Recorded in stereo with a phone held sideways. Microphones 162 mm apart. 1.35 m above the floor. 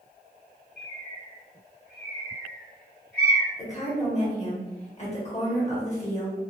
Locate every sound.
0.8 s a bird: 75° left (ahead or behind), 1.9 m
3.6 s a woman speaking: 45° left (ahead or behind), 1.3 m